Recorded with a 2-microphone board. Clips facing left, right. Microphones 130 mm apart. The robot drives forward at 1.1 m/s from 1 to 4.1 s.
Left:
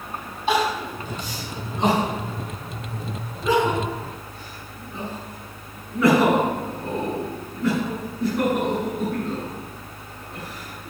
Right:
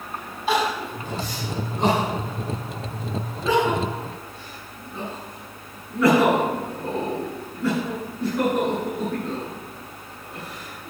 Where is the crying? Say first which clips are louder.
Left 1 dB; centre (ahead or behind), 6.5 m.